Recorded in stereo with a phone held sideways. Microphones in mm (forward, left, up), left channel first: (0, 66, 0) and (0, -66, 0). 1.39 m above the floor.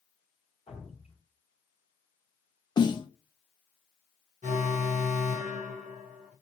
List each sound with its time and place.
0.7 s dripping: 60° left (ahead or behind), 2 m
2.8 s a snare drum: 35° left (ahead or behind), 0.6 m
4.4 s an alarm: 85° right, 1.1 m